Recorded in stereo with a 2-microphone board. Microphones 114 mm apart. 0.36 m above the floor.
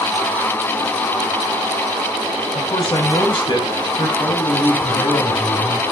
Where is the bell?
I don't hear a bell.